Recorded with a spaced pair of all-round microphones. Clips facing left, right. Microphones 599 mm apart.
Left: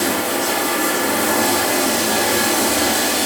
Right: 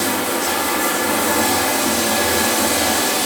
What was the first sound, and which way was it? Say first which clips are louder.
Running water: left 1 dB; 15° right (ahead or behind).